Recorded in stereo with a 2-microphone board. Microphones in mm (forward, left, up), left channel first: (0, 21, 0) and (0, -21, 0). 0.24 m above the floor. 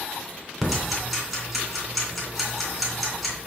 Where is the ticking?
5° right (ahead or behind), 3 m.